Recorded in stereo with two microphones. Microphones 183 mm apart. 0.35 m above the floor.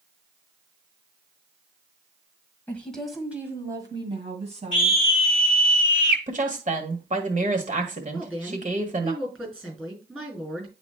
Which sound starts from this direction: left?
A scream, at 4.7 s.